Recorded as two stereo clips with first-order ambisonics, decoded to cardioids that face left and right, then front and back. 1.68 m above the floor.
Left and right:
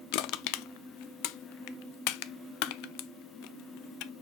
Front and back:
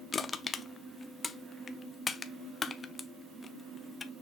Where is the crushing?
75° left, 0.6 m.